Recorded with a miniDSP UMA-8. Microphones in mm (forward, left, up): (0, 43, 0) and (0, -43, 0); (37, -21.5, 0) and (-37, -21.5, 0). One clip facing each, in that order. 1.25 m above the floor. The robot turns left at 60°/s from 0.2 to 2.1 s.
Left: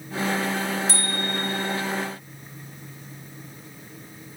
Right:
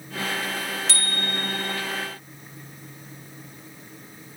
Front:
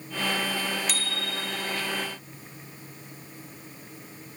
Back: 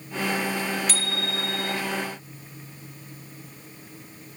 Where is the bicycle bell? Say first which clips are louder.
Left 2 dB, back 3 dB; 85° right, 3.5 m; by 1.8 s 140° right, 3.5 m.